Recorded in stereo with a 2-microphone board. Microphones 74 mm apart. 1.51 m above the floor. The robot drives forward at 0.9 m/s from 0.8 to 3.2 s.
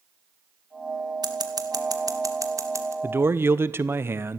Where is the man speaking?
30° right (ahead or behind), 1.1 m; by 4.4 s 35° right (ahead or behind), 1.0 m.